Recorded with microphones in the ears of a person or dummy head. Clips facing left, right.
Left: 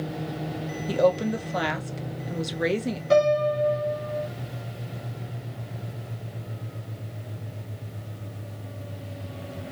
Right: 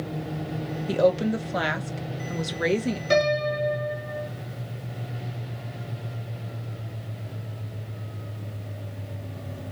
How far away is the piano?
About 2.5 m.